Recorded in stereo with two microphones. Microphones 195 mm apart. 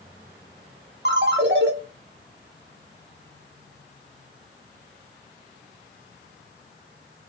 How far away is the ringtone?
About 0.8 m.